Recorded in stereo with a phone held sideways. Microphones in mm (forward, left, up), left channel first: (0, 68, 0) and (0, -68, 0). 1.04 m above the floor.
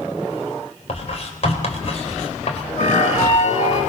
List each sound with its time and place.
0.9 s writing: 55° left (ahead or behind), 4 m
2.8 s a flute: 65° left (ahead or behind), 7 m